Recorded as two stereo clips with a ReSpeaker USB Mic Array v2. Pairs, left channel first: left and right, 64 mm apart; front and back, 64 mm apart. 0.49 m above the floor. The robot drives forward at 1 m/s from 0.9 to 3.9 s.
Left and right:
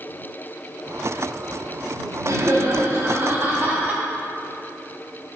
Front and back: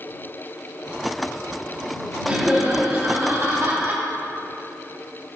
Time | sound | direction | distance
2.2 | laughter | 115° right | 2 m